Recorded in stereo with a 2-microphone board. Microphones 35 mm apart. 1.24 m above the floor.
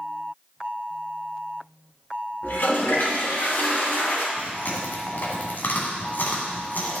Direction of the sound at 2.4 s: 60° left (ahead or behind).